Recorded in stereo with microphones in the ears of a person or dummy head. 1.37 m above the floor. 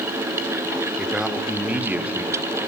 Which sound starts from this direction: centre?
A man speaking, at 1.0 s.